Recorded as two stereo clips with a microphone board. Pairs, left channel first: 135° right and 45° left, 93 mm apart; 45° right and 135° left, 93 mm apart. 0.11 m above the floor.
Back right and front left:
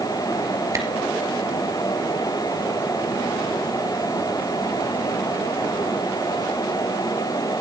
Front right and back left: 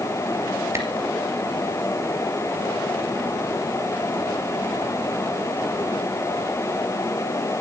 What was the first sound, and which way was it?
A camera shutter, 85° left.